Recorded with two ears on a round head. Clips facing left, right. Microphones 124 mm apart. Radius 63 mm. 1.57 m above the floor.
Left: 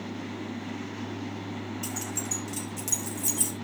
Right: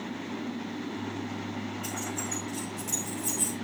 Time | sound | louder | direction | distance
1.8 | keys jangling | even | 80° left | 3.5 m